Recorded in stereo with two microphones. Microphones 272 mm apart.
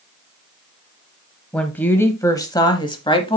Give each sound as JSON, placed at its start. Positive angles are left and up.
{"t": 1.5, "sound": "a woman speaking", "side_deg": 5, "distance_m": 1.0}